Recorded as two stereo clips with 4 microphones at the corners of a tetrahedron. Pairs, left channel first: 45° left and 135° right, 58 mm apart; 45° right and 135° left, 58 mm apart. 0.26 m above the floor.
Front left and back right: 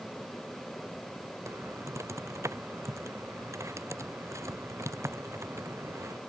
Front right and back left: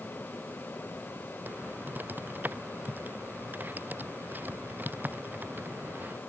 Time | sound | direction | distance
1.5 | typing on a keyboard | 165° right | ?